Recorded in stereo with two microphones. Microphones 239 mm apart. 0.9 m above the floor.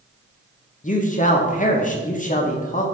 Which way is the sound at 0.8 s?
35° left (ahead or behind).